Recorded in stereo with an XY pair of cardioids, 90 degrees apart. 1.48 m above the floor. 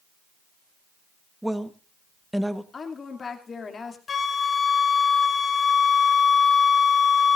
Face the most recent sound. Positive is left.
turn(degrees=45)